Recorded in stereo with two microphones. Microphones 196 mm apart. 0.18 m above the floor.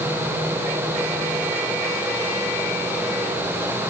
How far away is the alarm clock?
No alarm clock in this recording.